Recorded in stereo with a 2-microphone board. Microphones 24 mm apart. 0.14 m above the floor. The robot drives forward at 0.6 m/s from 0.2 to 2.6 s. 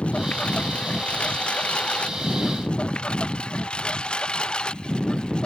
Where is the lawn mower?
65° left (ahead or behind); by 5.5 s 40° left (ahead or behind).